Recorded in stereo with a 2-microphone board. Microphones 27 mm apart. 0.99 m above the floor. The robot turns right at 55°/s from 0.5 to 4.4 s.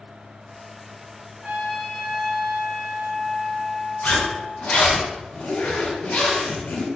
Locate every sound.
1.4 s a trumpet: 40° right, 1.6 m; by 4.9 s 120° left, 1.6 m
4.0 s a zipper: 65° left (ahead or behind), 1.2 m; by 6.8 s 55° left (ahead or behind), 1.2 m